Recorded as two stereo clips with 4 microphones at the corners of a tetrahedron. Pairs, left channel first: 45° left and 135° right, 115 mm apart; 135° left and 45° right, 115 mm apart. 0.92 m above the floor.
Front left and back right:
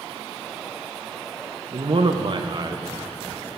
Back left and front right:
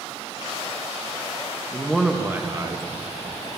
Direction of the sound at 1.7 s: 155° right.